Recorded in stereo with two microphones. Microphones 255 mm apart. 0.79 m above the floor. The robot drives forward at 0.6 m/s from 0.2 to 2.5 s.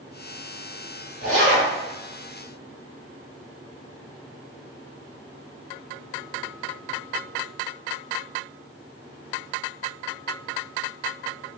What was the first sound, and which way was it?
A zipper, 55° right (ahead or behind).